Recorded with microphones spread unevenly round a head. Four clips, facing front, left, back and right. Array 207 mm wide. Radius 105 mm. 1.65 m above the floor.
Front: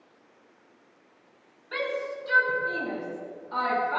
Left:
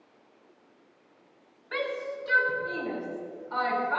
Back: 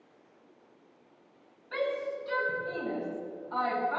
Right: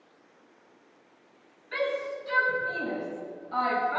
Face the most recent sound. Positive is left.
turn(degrees=60)